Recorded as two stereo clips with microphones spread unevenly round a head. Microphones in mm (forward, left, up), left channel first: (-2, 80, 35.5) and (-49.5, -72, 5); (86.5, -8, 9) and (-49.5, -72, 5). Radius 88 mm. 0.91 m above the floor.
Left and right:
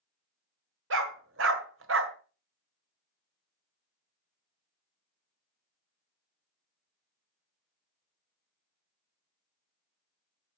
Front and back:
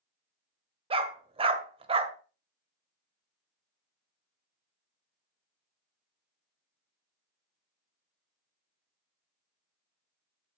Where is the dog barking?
100° right, 1.6 m.